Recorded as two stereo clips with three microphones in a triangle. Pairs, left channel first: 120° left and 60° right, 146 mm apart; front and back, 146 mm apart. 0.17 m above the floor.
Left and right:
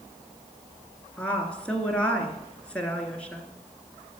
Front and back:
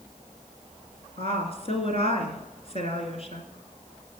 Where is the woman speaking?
40° left, 2 m.